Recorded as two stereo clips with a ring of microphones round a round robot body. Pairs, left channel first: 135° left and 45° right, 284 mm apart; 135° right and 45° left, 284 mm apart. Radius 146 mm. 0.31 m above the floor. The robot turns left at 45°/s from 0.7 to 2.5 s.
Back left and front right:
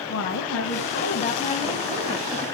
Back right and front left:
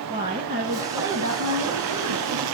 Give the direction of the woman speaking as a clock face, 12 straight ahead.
9 o'clock.